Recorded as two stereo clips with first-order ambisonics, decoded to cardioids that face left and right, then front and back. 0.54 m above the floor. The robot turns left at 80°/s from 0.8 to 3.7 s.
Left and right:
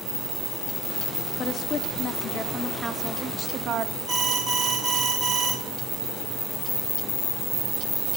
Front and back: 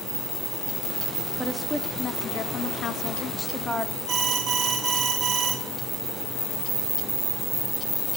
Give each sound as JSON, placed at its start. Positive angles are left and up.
{"t": 1.4, "sound": "a woman speaking", "azimuth_deg": 110, "distance_m": 0.7}
{"t": 4.1, "sound": "an alarm", "azimuth_deg": -160, "distance_m": 2.0}